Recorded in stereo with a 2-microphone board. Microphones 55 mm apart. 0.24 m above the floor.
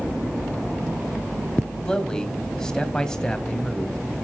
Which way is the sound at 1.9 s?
10° left (ahead or behind).